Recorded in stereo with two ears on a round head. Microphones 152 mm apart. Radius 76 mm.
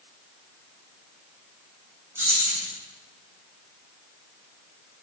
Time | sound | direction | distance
2.1 | keys jangling | 15° right (ahead or behind) | 4.5 m